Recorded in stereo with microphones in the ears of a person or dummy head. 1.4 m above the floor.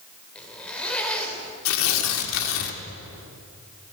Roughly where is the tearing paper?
Left.